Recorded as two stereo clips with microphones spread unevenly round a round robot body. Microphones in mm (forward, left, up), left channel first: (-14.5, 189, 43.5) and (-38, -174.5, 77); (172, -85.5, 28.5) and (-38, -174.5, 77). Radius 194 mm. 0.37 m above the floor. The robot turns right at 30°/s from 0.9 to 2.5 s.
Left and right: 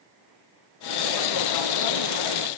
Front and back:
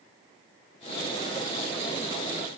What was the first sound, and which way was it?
Only background noise.